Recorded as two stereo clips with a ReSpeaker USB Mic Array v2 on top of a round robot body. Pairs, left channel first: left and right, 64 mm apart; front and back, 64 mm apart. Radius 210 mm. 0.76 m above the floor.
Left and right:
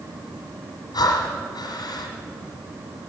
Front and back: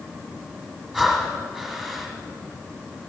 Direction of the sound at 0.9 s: 90° left.